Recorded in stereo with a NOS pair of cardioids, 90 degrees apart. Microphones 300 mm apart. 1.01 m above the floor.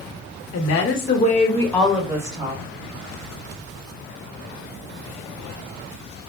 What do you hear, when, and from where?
0.5 s a woman speaking: 60° left, 1.1 m; by 2.6 s 20° right, 1.6 m